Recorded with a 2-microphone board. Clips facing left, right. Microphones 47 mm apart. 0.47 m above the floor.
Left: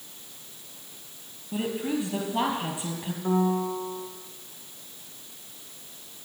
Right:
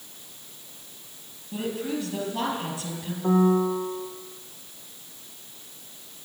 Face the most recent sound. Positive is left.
turn(degrees=-75)  # may be behind; listen again after turning